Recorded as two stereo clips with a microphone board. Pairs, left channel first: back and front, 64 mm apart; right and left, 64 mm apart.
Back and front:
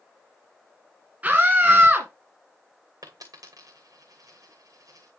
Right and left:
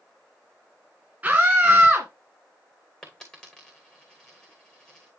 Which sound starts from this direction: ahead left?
A scream, at 1.2 s.